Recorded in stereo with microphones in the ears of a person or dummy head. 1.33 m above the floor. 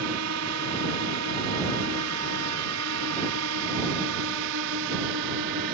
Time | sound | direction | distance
0.0 | a drone | 55° right (ahead or behind) | ?